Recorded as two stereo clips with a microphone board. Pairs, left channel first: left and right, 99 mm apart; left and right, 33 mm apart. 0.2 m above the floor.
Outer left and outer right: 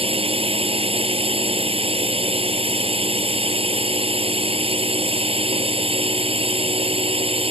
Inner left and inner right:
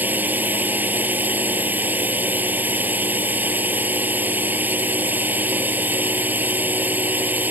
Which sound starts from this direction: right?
A drone, at 0.0 s.